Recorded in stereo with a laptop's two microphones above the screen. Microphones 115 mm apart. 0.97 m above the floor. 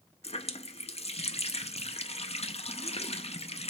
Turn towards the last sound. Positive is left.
turn(degrees=65)  # may be behind; listen again after turning